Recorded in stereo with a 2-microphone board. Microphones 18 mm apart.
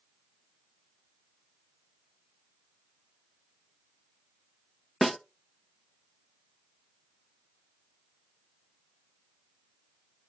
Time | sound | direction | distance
5.0 | a snare drum | 5° left (ahead or behind) | 0.5 m